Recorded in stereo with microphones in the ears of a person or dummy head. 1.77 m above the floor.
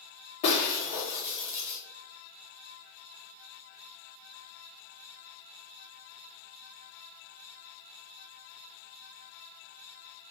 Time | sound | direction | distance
0.4 | breaking glass | 40° left (ahead or behind) | 1.5 m